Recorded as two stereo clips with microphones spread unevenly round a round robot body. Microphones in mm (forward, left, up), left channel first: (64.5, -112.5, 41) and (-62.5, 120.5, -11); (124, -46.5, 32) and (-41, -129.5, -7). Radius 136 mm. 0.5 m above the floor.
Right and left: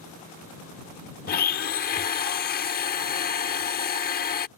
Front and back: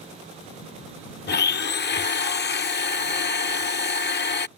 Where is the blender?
Straight ahead.